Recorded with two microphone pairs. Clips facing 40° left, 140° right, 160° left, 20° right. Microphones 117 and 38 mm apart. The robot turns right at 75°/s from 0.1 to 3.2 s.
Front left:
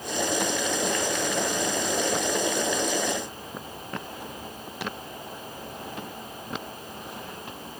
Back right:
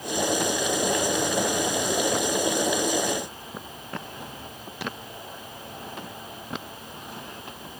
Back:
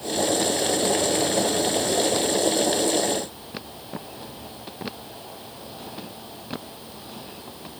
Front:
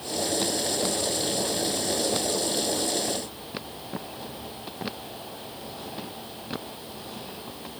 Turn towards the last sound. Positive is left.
No sound to turn to.